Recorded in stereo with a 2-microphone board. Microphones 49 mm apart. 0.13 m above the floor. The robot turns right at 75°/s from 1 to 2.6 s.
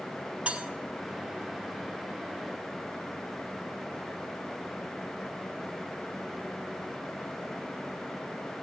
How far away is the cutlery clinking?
About 1.0 m.